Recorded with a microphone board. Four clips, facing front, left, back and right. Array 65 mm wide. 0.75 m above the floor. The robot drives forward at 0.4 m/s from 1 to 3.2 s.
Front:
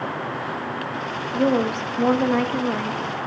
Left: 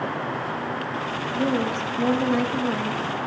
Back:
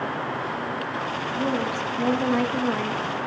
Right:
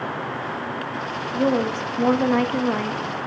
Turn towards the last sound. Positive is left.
turn(degrees=-120)